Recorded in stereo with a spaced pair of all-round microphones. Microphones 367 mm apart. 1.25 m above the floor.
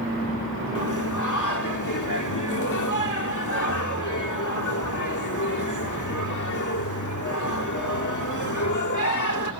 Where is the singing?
50° left (ahead or behind), 1.1 m.